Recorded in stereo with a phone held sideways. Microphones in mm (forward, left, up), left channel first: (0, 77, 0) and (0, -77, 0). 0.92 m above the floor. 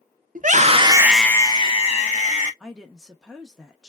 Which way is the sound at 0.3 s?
60° right (ahead or behind).